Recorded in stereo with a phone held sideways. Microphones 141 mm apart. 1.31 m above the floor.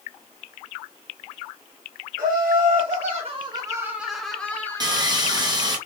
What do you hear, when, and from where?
2.2 s laughter: 80° right, 1.0 m; by 5.2 s 25° left (ahead or behind), 1.2 m
4.8 s sawing: 30° right (ahead or behind), 0.7 m